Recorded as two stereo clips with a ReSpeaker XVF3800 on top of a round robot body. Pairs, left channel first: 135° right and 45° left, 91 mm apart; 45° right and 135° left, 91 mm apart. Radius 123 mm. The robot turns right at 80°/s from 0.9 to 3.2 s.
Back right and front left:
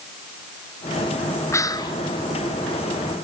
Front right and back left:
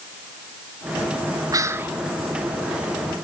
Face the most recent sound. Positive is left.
turn(degrees=-55)